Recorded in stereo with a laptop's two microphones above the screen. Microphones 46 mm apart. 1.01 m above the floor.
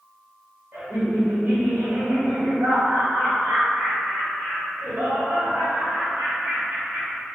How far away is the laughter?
About 1.1 m.